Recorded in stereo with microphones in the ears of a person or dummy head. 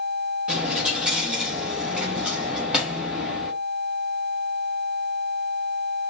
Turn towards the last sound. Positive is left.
turn(degrees=-5)  # may be behind; listen again after turning